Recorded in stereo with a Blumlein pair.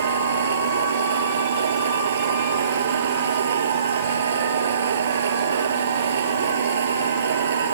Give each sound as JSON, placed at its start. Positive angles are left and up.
{"t": 0.0, "sound": "a machine running", "azimuth_deg": -65}